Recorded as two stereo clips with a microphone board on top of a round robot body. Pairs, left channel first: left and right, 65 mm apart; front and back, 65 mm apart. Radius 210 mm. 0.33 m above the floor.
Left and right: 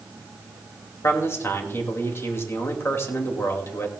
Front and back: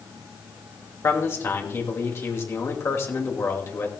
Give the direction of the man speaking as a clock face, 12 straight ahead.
11 o'clock.